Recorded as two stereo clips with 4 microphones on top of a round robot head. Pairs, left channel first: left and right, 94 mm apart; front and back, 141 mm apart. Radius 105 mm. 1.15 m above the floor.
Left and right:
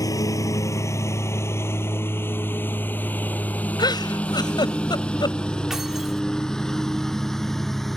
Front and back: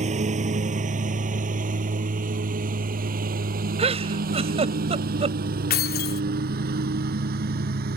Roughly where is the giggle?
Behind left.